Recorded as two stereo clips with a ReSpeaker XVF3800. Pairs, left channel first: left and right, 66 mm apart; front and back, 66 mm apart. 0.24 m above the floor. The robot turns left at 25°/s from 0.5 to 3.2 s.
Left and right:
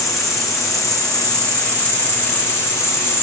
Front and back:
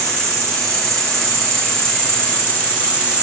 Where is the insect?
175° right, 1.1 m; by 3.2 s 120° left, 1.1 m.